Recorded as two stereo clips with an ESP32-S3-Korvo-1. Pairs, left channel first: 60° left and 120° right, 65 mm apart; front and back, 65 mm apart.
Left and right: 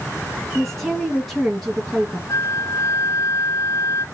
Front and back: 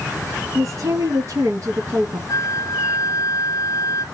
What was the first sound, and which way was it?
A woman speaking, 150° left.